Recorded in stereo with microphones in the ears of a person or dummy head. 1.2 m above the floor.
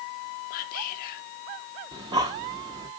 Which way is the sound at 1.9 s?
15° right (ahead or behind).